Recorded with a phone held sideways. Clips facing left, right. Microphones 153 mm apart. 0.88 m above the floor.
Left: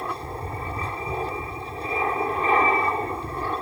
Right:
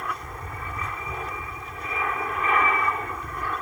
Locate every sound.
0.0 s an aircraft: 35° left (ahead or behind)